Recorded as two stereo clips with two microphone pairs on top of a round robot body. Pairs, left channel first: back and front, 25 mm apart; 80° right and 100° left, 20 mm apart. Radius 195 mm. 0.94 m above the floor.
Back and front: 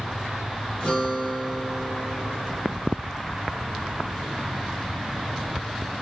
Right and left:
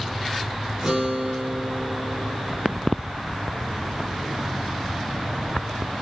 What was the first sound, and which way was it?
A guitar, 160° left.